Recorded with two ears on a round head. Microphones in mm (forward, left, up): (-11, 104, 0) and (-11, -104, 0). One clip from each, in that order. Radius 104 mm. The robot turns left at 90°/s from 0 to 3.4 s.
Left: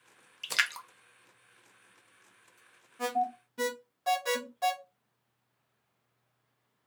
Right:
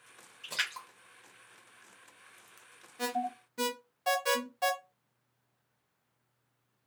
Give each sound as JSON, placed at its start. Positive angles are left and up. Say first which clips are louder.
{"t": 0.4, "sound": "a splash", "louder": "left 5 dB", "side_deg": 55, "distance_m": 0.5}
{"t": 3.0, "sound": "an alarm", "louder": "left 3 dB", "side_deg": -30, "distance_m": 1.0}